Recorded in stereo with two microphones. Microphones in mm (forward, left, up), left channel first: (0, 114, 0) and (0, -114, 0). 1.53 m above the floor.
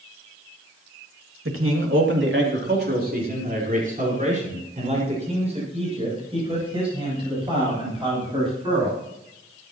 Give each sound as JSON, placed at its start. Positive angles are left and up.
{"t": 1.4, "sound": "a man speaking", "side_deg": -75, "distance_m": 2.5}